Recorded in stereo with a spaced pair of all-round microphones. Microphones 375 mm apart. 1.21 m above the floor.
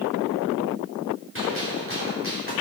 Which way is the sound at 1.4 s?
35° right (ahead or behind).